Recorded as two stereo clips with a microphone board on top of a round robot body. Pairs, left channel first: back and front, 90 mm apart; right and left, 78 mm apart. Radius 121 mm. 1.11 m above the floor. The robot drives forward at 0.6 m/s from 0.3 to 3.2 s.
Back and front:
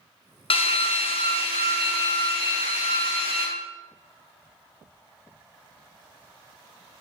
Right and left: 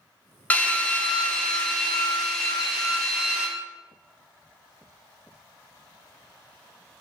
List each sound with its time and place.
0.5 s a drill: 165° right, 1.0 m; by 3.5 s 175° right, 2.5 m